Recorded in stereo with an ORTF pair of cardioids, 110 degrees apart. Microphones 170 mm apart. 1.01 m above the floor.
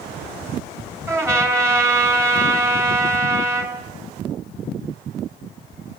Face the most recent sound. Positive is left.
turn(degrees=-15)